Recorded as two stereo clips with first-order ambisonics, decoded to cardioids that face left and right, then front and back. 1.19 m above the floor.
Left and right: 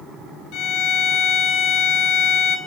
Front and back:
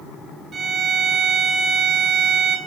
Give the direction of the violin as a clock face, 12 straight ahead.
8 o'clock.